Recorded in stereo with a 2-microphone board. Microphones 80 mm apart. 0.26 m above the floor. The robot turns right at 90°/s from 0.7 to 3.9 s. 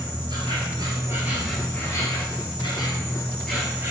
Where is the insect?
75° right, 1.0 m; by 3.9 s 150° right, 1.0 m.